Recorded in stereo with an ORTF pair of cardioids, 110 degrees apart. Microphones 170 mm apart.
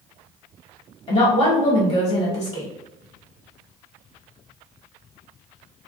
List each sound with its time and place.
1.1 s a woman speaking: 40° left, 1.5 m